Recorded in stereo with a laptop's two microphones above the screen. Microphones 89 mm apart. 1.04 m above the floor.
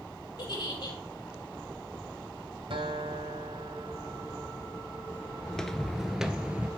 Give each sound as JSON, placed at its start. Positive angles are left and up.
{"t": 0.4, "sound": "a giggle", "side_deg": 55, "distance_m": 3.0}
{"t": 2.7, "sound": "a guitar", "side_deg": -75, "distance_m": 1.8}
{"t": 5.5, "sound": "footsteps", "side_deg": 10, "distance_m": 1.0}